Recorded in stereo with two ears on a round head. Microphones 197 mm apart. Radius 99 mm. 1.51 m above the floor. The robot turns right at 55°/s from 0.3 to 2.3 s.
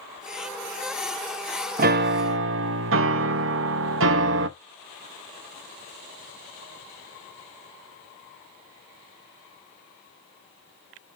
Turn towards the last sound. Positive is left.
turn(degrees=-65)  # may be behind; listen again after turning